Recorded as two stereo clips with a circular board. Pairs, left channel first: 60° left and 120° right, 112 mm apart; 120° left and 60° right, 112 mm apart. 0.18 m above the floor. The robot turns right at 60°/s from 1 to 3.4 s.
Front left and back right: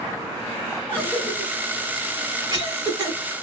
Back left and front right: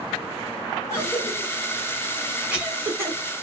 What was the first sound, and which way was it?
A cough, 135° left.